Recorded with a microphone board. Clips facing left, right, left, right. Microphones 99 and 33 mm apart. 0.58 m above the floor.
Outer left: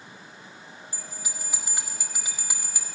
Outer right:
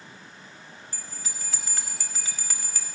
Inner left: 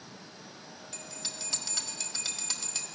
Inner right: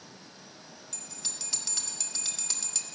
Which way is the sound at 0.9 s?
15° left (ahead or behind).